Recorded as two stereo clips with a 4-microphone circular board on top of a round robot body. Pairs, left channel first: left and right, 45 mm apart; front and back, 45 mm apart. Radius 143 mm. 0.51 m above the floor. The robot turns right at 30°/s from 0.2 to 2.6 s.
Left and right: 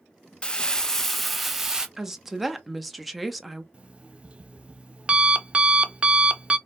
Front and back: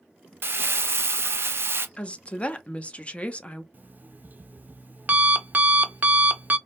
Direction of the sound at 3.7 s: 145° right.